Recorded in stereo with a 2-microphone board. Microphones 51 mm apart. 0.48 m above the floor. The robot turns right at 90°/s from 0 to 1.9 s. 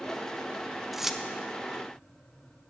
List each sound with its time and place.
0.9 s keys jangling: 5° right (ahead or behind), 0.5 m; by 1.2 s 10° right (ahead or behind), 0.5 m